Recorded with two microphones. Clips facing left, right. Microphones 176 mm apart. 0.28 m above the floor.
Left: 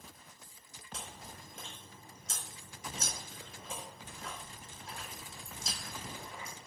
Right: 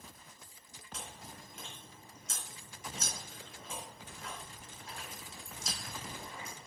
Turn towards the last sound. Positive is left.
turn(degrees=30)  # may be behind; listen again after turning